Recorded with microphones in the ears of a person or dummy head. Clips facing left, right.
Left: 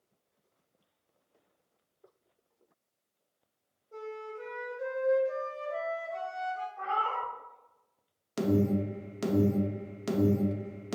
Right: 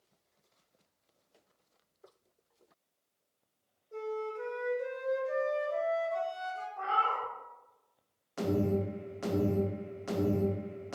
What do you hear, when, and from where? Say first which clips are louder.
3.9 s a flute: right 4 dB; 10° right (ahead or behind), 0.9 m
6.8 s a cat meowing: even; 45° right (ahead or behind), 1.0 m
8.4 s an alarm: left 3 dB; 40° left (ahead or behind), 0.6 m